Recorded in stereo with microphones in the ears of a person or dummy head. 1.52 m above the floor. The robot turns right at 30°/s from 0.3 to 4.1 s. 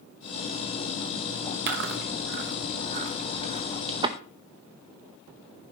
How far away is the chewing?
About 0.9 m.